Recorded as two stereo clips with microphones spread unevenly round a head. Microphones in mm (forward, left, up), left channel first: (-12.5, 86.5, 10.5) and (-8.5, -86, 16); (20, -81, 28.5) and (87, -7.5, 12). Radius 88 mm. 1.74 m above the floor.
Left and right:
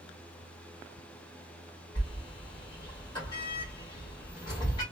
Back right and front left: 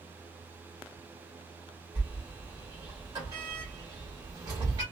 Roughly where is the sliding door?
Ahead left.